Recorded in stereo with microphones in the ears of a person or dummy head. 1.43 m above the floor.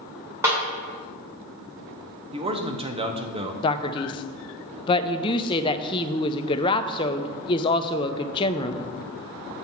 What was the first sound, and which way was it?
A snare drum, 10° right (ahead or behind).